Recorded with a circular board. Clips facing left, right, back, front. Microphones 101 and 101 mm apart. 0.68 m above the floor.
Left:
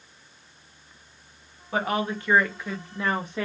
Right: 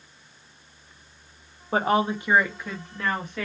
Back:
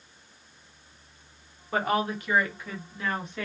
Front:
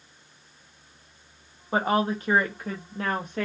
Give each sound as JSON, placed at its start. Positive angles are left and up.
{"t": 1.7, "sound": "a woman speaking", "azimuth_deg": -55, "distance_m": 0.8}